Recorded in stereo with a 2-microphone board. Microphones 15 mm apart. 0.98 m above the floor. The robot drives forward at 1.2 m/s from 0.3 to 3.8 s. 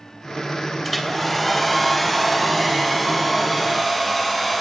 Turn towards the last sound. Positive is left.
turn(degrees=5)  # may be behind; listen again after turning